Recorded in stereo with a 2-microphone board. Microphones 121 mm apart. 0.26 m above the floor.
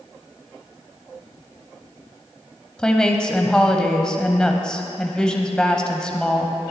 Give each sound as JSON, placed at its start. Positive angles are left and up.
{"t": 2.8, "sound": "a woman speaking", "side_deg": 5, "distance_m": 1.1}